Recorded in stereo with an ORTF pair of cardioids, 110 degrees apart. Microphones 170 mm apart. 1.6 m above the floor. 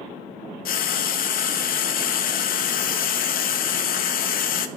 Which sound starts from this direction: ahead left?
Frying, at 0.7 s.